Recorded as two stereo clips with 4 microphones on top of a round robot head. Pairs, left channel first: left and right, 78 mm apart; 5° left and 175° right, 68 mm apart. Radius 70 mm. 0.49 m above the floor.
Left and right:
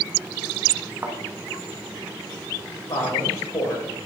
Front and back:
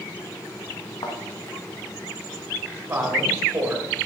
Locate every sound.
1.0 s a thud: 25° right, 1.9 m
2.9 s a woman speaking: 135° left, 3 m